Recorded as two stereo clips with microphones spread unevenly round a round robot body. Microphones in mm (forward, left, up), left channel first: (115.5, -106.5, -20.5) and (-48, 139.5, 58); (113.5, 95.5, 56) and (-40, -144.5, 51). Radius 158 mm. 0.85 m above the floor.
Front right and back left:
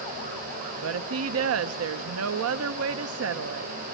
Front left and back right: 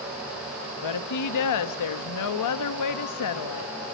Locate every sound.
0.8 s a woman speaking: 75° left, 1.0 m